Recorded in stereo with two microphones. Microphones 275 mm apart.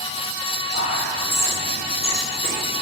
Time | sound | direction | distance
0.7 | whispering | 60° left (ahead or behind) | 2.5 m